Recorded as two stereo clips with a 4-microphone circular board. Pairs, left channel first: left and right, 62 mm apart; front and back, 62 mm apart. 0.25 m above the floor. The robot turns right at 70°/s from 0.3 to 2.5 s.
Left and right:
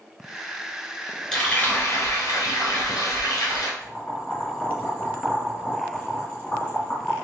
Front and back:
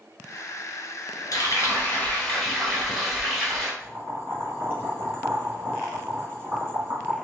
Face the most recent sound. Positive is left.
turn(degrees=150)